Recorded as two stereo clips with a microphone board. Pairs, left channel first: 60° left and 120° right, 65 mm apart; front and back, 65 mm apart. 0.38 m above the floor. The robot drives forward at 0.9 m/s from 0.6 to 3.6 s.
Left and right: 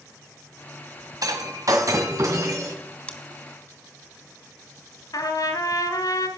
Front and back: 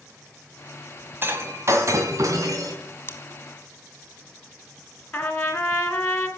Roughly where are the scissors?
Ahead.